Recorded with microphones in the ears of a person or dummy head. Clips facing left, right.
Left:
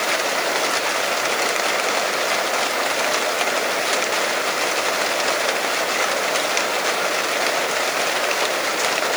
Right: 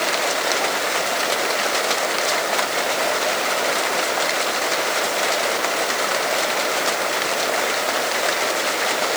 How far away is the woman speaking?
No woman speaking in this recording.